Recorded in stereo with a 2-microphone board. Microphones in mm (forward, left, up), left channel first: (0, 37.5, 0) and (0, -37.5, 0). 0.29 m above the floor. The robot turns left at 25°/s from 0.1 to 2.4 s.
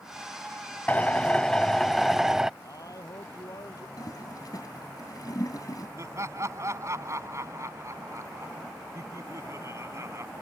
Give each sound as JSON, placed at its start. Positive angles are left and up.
{"t": 0.9, "sound": "a drill", "azimuth_deg": 30}
{"t": 2.6, "sound": "a man speaking", "side_deg": 50}
{"t": 4.0, "sound": "a toilet flushing", "side_deg": 55}
{"t": 6.0, "sound": "laughter", "side_deg": -45}